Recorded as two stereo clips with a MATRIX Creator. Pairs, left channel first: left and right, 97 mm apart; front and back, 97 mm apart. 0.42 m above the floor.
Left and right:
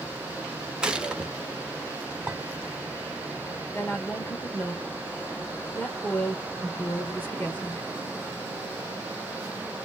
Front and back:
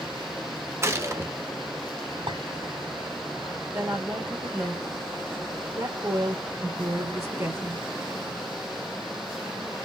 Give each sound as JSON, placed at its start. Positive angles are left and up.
{"t": 0.8, "sound": "a gunshot", "azimuth_deg": -160, "distance_m": 0.8}
{"t": 2.3, "sound": "a clink", "azimuth_deg": -170, "distance_m": 2.5}
{"t": 3.7, "sound": "a woman speaking", "azimuth_deg": 150, "distance_m": 1.1}